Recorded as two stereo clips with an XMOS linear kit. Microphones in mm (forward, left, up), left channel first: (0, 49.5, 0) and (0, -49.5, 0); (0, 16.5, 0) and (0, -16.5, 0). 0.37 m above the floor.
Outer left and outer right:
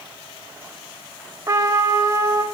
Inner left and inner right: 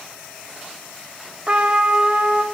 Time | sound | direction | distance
1.5 | a trumpet | 35° right (ahead or behind) | 0.7 m